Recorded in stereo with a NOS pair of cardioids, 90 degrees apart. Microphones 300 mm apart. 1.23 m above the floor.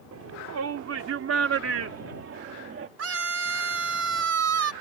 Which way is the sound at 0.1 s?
60° right.